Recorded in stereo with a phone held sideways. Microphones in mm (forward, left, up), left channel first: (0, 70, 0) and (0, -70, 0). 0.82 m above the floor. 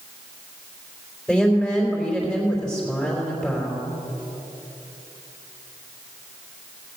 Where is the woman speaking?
Centre (ahead or behind), 3.5 m.